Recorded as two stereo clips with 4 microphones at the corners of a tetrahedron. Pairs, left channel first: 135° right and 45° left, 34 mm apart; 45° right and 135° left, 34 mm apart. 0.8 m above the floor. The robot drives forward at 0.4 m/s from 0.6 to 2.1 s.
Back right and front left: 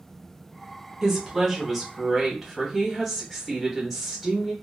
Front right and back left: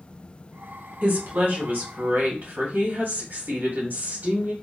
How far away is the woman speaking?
About 1.1 m.